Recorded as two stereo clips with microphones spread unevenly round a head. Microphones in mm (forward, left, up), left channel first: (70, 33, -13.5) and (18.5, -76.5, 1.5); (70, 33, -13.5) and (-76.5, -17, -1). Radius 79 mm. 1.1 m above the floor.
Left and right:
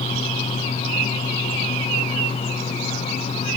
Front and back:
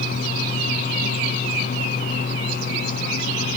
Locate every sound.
Only background noise.